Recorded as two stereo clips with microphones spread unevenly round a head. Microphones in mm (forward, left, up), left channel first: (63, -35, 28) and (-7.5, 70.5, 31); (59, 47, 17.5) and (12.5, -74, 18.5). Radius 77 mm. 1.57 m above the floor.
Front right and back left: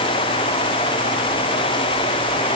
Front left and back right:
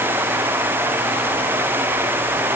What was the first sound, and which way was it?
Only background noise.